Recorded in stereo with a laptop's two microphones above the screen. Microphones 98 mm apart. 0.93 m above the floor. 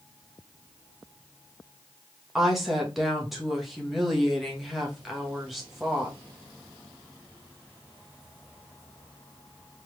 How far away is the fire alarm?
I don't hear a fire alarm.